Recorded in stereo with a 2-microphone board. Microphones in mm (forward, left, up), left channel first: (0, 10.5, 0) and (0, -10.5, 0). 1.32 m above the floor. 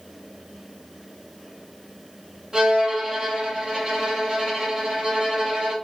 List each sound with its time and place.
2.5 s a violin: 25° right (ahead or behind), 1.9 m